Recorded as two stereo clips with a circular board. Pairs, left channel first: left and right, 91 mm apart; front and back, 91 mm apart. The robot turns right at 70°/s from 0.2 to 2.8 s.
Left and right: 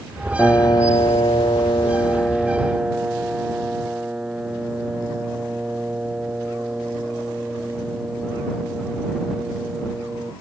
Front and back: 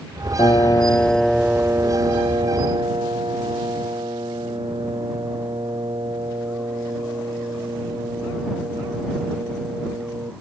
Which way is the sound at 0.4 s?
25° left.